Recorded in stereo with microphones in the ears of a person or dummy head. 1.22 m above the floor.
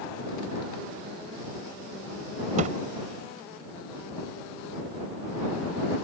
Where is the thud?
40° right (ahead or behind).